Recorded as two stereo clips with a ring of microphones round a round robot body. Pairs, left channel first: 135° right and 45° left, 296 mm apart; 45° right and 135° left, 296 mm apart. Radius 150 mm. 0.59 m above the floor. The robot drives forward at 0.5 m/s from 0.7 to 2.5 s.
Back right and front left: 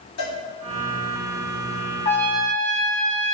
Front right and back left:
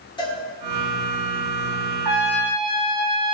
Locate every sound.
0.2 s a cowbell: 115° right, 1.9 m
2.0 s a trumpet: 155° left, 1.1 m; by 3.3 s 160° left, 1.3 m